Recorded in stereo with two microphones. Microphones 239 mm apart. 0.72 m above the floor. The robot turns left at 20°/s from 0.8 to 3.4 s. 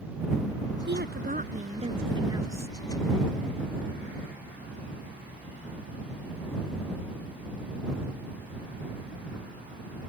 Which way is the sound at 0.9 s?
135° right.